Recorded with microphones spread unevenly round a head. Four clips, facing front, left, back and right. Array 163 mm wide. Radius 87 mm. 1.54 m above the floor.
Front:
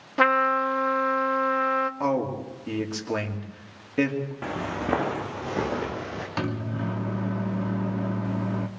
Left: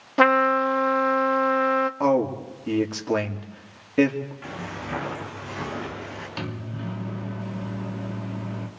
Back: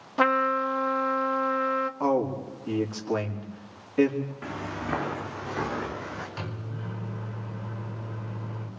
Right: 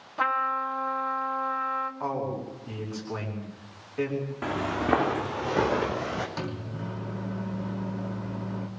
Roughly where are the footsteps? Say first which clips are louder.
Right 6 dB, front 4 dB; ahead right.